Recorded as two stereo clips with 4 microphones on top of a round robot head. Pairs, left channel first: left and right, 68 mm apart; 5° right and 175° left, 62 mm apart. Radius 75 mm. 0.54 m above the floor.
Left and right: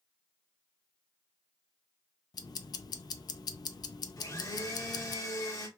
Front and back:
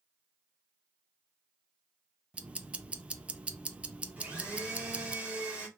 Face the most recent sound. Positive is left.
turn(degrees=110)